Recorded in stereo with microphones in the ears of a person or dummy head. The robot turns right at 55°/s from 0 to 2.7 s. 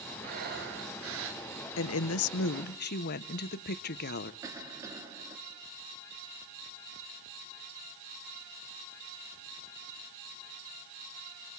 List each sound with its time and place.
0.2 s breathing: 140° right, 1.3 m; by 1.4 s 75° right, 1.3 m
1.8 s a woman speaking: 75° left, 0.8 m; by 4.3 s 130° left, 0.8 m
4.4 s a cough: 15° right (ahead or behind), 2.5 m